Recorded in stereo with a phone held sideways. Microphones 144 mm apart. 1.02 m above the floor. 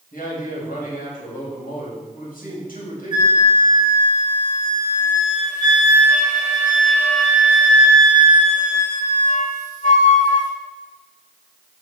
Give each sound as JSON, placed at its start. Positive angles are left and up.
{"t": 0.1, "sound": "a man speaking", "side_deg": 80, "distance_m": 5.0}
{"t": 3.1, "sound": "a flute", "side_deg": 60, "distance_m": 1.9}